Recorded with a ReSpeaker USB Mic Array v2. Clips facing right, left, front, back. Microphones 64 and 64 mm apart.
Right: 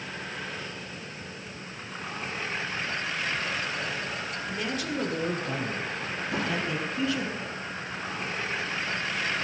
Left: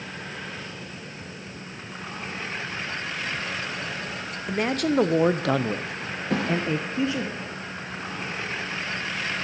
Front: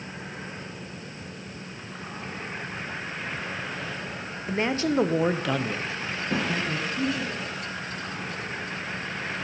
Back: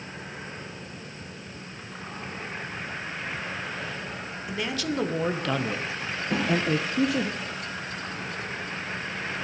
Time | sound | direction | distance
4.5 | a man speaking | 50° left | 0.9 m
6.3 | a thud | 90° left | 6.5 m